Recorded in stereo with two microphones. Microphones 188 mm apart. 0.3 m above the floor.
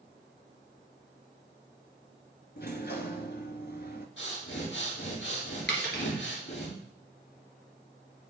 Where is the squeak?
I don't hear a squeak.